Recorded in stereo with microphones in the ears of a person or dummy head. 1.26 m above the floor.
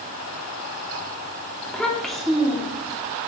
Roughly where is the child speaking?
Centre.